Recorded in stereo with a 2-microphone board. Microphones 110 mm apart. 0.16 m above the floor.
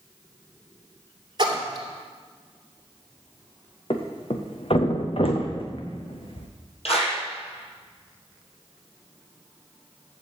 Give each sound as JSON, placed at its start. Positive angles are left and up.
{"t": 1.4, "sound": "a splash", "side_deg": -40, "distance_m": 2.5}
{"t": 3.9, "sound": "a thud", "side_deg": 55, "distance_m": 1.6}
{"t": 6.8, "sound": "a clap", "side_deg": 65, "distance_m": 4.0}